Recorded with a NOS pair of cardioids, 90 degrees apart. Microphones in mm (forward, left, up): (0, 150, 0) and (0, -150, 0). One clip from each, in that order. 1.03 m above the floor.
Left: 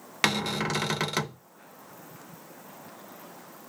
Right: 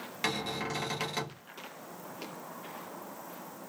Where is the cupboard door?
50° left, 0.7 m.